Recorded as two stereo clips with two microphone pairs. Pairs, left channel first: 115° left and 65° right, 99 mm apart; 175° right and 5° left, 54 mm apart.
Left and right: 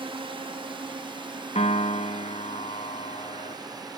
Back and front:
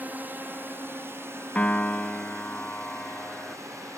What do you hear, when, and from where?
0.0 s a drone: 50° right; by 4.0 s 15° right
1.6 s a piano: 115° left